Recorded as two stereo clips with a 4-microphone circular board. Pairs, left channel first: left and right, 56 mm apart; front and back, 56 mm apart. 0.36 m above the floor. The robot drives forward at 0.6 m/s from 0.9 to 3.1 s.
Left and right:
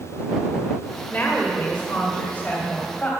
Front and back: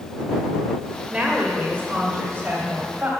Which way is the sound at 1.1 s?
120° left.